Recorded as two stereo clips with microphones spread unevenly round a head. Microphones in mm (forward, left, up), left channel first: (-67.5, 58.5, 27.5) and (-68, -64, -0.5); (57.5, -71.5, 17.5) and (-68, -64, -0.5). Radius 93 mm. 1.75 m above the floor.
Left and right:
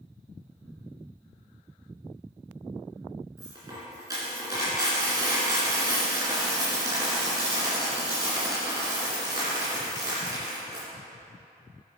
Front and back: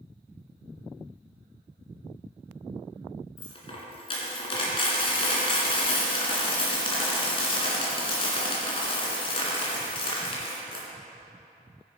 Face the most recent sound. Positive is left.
turn(degrees=-15)